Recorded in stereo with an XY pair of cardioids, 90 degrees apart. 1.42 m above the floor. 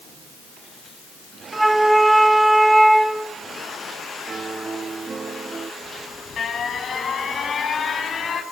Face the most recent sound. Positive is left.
turn(degrees=55)